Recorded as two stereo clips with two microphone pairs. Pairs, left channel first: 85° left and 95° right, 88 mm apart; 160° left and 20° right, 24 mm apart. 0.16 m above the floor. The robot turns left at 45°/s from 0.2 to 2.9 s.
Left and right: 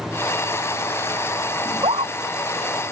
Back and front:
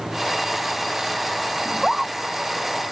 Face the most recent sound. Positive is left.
turn(degrees=-145)